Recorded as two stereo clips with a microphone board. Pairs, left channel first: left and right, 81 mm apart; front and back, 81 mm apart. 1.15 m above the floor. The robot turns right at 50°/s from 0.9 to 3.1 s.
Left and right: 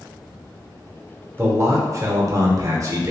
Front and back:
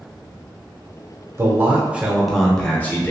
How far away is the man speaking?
About 0.7 m.